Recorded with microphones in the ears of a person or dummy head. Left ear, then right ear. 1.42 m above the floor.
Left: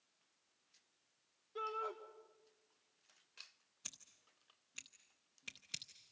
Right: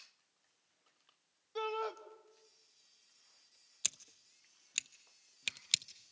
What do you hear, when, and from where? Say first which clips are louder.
1.6 s a shout: right 4 dB; 40° right (ahead or behind), 2.5 m
3.8 s scissors: right 12 dB; 35° right (ahead or behind), 0.6 m